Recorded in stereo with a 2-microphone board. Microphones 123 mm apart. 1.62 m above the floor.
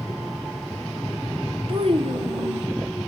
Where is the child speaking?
50° right (ahead or behind), 1.0 m.